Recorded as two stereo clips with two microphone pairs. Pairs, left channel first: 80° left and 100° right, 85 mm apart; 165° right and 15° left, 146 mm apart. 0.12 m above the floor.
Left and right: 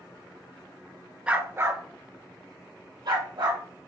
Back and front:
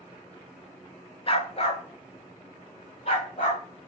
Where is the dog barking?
170° right, 0.5 m; by 3.6 s 115° right, 1.8 m.